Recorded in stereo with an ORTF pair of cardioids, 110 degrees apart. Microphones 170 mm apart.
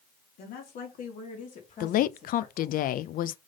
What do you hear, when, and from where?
0.4 s a woman speaking: 65° left, 2.5 m; by 2.8 s 35° left, 4 m
1.8 s a woman speaking: 55° left, 0.5 m